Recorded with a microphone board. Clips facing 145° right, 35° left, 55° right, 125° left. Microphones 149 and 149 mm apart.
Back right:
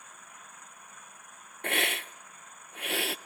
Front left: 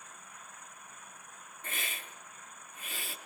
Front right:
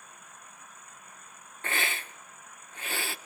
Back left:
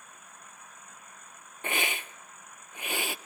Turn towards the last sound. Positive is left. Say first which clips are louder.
# back right 12 dB, back left 1 dB
turn(degrees=-160)